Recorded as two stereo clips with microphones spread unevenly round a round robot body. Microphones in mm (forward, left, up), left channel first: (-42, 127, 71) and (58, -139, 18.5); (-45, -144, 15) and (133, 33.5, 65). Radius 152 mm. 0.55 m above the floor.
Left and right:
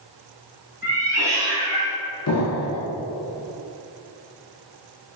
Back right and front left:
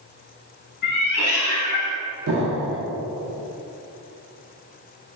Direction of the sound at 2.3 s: 85° left.